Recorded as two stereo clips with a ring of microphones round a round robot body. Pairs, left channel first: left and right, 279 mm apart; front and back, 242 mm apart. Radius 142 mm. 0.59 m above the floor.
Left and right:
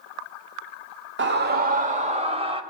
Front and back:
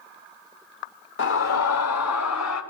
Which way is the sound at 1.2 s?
45° right.